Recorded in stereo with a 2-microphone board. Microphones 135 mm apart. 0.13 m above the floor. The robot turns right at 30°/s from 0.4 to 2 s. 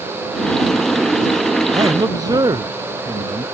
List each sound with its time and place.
1.7 s a man speaking: 35° right (ahead or behind); by 3.4 s 30° right (ahead or behind)